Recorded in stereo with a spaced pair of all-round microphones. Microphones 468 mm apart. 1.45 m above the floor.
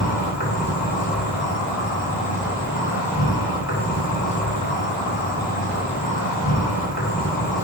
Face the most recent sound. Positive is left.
turn(degrees=25)  # may be behind; listen again after turning